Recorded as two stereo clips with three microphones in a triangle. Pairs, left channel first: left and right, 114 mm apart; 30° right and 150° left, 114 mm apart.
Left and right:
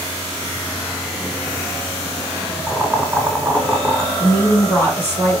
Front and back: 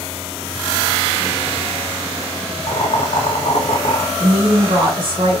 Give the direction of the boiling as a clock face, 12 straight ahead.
12 o'clock.